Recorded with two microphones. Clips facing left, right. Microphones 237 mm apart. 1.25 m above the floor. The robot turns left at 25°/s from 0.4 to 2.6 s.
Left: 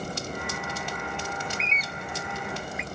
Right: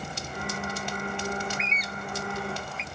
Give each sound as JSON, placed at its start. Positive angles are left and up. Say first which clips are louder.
{"t": 1.4, "sound": "a bird", "louder": "right 1 dB", "side_deg": 40}